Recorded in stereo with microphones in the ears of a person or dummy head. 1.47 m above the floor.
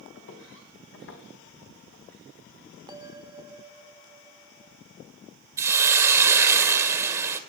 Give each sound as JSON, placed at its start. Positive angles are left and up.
{"t": 0.1, "sound": "footsteps", "side_deg": 75, "distance_m": 5.5}
{"t": 2.9, "sound": "a bell", "side_deg": -15, "distance_m": 0.7}
{"t": 5.6, "sound": "a hiss", "side_deg": -10, "distance_m": 2.0}